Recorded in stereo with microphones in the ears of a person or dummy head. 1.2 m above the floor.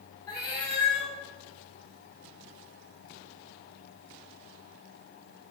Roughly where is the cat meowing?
Left.